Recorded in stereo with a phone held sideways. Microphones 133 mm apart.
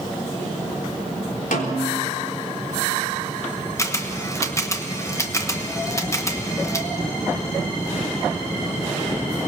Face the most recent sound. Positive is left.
turn(degrees=20)  # may be behind; listen again after turning